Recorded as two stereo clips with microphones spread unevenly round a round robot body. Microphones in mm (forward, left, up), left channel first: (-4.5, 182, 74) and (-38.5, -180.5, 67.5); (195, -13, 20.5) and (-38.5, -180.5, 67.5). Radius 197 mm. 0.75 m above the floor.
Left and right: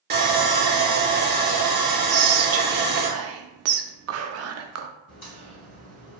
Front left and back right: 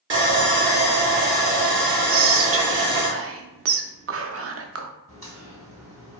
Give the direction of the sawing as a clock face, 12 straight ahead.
4 o'clock.